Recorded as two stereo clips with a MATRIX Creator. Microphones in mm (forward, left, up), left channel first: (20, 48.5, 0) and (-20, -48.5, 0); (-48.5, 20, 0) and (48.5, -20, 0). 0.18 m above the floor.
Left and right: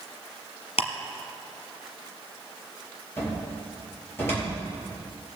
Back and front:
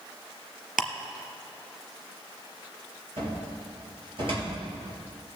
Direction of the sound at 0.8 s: 65° left.